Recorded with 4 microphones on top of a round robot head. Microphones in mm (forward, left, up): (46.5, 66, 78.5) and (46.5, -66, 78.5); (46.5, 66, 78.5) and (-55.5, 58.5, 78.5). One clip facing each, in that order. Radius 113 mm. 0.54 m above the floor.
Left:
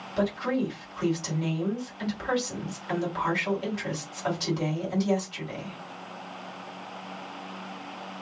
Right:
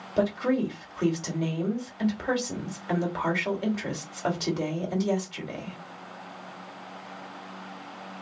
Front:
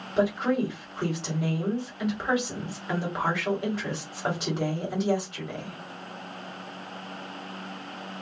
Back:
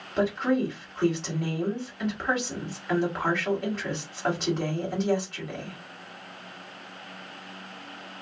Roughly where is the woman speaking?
Right.